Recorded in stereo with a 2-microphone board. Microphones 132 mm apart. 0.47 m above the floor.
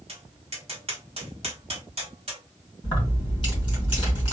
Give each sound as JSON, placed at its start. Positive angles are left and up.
{"t": 0.1, "sound": "tapping", "side_deg": -45, "distance_m": 1.3}
{"t": 2.8, "sound": "keys jangling", "side_deg": 40, "distance_m": 2.5}